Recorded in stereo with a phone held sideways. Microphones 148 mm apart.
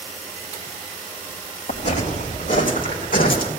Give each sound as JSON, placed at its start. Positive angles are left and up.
{"t": 1.7, "sound": "footsteps", "side_deg": 50, "distance_m": 3.5}